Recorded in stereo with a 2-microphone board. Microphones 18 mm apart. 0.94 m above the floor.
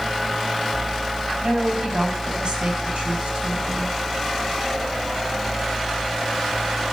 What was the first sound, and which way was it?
A woman speaking, 55° right (ahead or behind).